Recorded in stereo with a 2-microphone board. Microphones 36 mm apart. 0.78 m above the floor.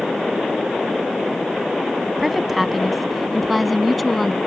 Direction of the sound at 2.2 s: 5° right (ahead or behind).